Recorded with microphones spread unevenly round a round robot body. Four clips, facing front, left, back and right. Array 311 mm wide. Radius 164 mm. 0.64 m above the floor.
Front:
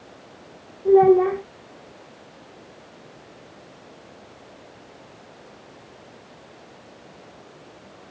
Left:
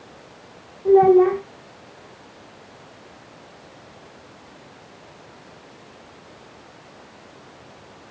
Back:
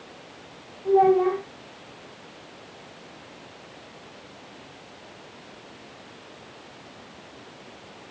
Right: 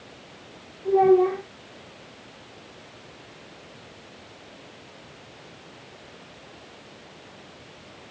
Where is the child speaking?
40° left, 1.6 m.